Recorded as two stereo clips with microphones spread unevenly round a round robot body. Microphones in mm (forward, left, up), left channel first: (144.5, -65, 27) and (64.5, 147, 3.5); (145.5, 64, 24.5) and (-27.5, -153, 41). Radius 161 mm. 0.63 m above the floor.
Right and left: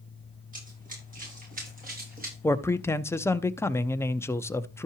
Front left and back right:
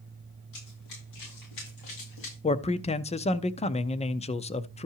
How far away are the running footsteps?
About 8 m.